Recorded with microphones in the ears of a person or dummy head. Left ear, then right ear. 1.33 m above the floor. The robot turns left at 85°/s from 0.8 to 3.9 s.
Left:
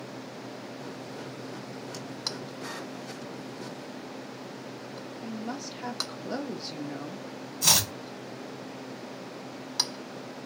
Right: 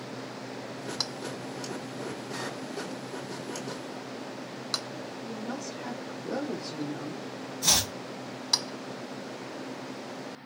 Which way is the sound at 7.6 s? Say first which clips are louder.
Left 2 dB; 70° left (ahead or behind).